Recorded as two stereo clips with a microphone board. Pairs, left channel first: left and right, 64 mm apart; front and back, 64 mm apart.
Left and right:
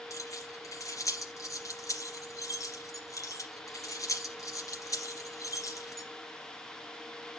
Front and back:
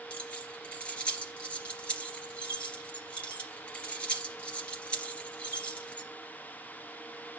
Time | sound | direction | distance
0.1 | keys jangling | 70° left | 2.5 m